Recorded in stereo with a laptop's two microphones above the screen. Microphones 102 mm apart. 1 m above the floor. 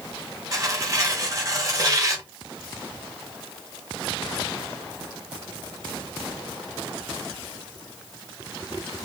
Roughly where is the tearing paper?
Right.